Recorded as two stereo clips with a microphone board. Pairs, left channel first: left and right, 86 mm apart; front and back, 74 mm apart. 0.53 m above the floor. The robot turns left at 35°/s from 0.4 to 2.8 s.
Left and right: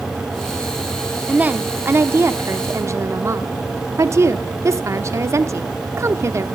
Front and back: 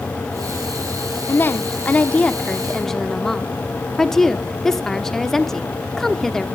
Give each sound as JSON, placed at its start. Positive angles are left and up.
{"t": 1.3, "sound": "a woman speaking", "azimuth_deg": -25, "distance_m": 1.0}